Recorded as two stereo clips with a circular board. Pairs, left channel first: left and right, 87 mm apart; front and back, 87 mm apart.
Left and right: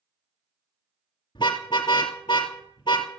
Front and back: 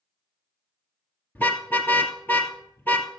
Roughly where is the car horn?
Ahead left.